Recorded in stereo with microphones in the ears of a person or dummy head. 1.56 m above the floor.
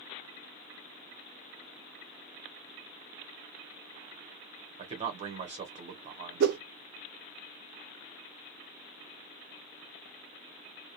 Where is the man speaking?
35° right (ahead or behind), 1.2 m.